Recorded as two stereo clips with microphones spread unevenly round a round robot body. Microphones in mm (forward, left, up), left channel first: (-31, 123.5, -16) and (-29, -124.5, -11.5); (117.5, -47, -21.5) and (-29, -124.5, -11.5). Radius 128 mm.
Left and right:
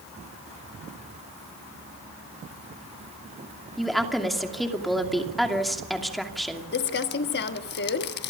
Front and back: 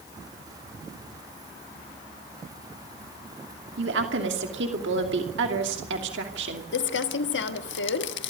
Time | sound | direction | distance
3.8 | a woman speaking | straight behind | 2.5 m
6.7 | crumpling | 35° left | 1.2 m